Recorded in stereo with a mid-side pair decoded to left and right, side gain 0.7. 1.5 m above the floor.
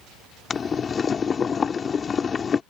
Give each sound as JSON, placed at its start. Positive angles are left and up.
{"t": 0.5, "sound": "boiling", "azimuth_deg": 30}